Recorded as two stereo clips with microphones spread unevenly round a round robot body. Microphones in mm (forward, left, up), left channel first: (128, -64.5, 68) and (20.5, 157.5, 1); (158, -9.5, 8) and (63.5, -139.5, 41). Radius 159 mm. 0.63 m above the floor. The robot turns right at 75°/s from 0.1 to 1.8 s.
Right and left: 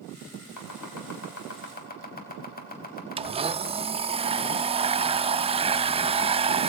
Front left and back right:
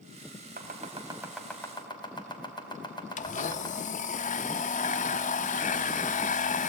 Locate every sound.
0.6 s chopping: 100° right, 4 m; by 3.8 s 10° right, 4 m
3.2 s a blender: 65° left, 0.8 m